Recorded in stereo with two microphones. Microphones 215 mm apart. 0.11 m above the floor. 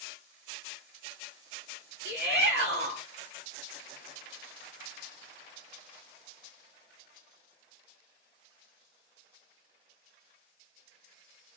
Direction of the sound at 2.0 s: 50° right (ahead or behind).